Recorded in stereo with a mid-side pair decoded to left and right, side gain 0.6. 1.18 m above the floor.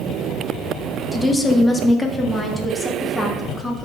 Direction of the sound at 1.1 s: 15° left.